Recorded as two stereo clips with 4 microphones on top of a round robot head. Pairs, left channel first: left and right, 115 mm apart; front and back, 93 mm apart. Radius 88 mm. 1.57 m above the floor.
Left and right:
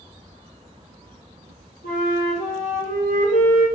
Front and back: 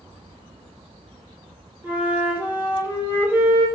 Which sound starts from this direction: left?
A flute, at 1.8 s.